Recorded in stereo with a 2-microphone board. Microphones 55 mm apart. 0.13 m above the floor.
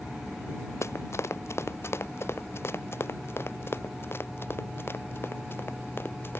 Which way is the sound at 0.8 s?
55° left (ahead or behind).